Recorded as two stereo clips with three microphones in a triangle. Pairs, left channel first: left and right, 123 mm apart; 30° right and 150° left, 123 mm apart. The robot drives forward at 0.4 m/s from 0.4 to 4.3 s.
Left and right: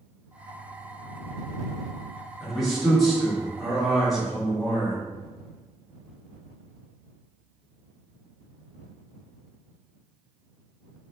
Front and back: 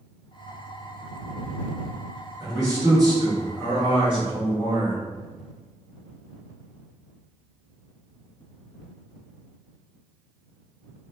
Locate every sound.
2.4 s a man speaking: straight behind, 1.7 m